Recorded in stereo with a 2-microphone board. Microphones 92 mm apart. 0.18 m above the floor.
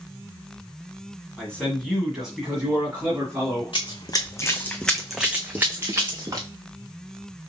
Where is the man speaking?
10° left (ahead or behind), 1.7 m; by 3.7 s 25° right (ahead or behind), 2.5 m.